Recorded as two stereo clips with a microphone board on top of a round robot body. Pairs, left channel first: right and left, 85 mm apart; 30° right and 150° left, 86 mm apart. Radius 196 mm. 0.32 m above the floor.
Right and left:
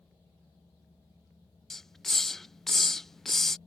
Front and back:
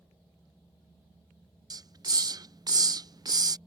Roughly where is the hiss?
Behind.